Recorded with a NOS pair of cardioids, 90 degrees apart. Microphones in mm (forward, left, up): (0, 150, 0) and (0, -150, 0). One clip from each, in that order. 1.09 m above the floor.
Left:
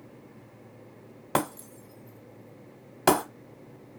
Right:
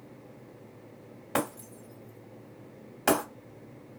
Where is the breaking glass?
45° left, 1.6 m.